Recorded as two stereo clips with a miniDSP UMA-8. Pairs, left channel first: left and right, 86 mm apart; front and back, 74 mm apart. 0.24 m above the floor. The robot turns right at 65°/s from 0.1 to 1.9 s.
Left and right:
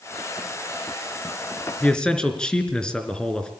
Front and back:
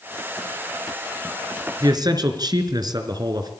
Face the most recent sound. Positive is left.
turn(degrees=170)